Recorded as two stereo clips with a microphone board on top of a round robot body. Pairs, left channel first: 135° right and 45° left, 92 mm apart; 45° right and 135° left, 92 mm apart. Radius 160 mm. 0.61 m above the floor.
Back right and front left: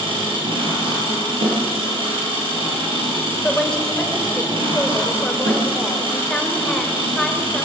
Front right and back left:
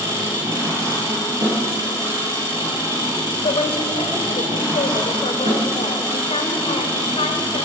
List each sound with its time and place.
0.0 s an engine running: 75° left, 7 m
3.4 s a woman speaking: 55° right, 3 m